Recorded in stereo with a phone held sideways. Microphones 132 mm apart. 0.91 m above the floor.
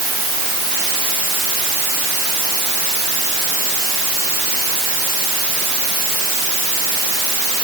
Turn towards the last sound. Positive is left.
No sound to turn to.